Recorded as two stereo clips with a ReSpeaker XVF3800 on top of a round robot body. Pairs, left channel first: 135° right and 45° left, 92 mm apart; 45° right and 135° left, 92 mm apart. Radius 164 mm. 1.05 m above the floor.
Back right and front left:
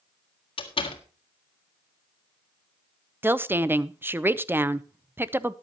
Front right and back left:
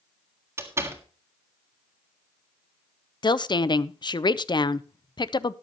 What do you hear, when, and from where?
0.6 s a door slam: 160° right, 1.8 m
3.2 s a woman speaking: 20° right, 0.8 m